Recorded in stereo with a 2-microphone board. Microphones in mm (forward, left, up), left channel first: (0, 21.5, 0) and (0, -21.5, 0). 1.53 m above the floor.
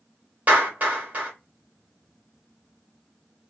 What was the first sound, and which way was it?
A clap, 40° right (ahead or behind).